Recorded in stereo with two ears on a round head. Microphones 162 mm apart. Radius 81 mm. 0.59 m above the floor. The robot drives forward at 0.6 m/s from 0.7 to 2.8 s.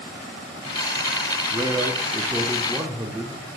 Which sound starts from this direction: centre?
A man speaking, at 1.5 s.